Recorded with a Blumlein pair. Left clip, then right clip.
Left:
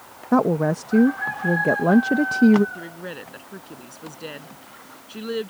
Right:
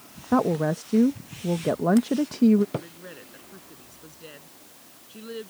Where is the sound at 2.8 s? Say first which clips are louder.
Left 3 dB; 25° left.